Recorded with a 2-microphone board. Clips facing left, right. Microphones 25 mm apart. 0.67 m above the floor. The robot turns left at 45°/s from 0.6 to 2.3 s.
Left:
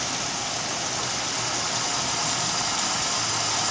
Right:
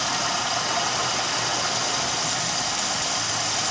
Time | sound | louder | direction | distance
0.0 | running water | right 4 dB | 85° right | 2.5 m